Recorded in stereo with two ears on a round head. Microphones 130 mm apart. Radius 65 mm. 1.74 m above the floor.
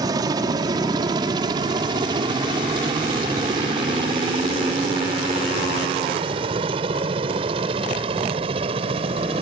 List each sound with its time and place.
0.0 s a helicopter: 25° right (ahead or behind); by 9.4 s 40° right (ahead or behind)